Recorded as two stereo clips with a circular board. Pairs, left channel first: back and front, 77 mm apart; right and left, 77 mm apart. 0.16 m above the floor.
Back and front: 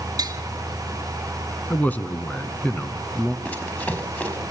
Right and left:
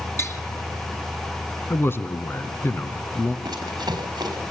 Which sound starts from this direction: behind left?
Running footsteps, at 3.5 s.